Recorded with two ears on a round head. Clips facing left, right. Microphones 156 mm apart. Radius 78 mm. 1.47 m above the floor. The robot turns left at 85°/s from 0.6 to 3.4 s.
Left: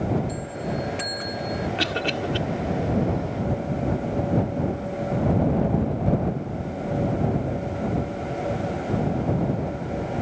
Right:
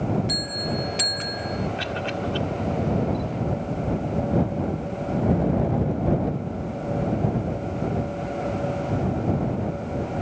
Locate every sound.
0.3 s a bell: 100° right; by 1.7 s 170° left
1.8 s a cough: 70° left (ahead or behind); by 2.4 s 20° left (ahead or behind)